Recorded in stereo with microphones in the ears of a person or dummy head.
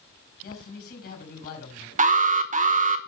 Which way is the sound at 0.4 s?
70° left (ahead or behind).